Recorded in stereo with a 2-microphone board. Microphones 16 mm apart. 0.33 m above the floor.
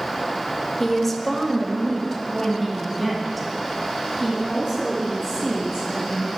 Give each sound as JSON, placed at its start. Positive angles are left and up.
{"t": 0.8, "sound": "a woman speaking", "side_deg": 15, "distance_m": 0.9}